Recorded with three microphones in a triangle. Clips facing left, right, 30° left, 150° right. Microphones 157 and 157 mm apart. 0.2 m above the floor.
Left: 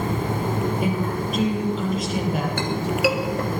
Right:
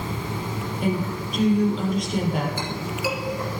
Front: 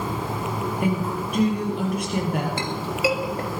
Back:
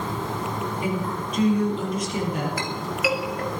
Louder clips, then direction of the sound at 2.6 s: Left 6 dB, front 2 dB; 90° left.